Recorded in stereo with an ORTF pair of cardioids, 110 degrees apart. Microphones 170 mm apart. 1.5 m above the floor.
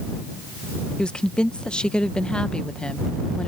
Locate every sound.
1.0 s a woman speaking: 5° left